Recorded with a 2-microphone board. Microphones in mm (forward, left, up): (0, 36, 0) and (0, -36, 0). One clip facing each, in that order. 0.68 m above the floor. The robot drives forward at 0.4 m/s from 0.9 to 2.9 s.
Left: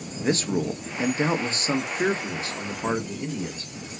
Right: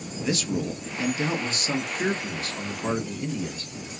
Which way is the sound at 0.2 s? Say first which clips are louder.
Left 3 dB; 35° left (ahead or behind).